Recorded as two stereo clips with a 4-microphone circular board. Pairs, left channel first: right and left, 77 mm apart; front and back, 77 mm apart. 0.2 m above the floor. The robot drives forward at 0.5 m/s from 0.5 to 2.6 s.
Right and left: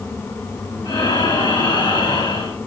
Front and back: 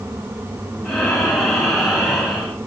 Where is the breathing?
85° right, 3 m; by 2.6 s 100° right, 3 m.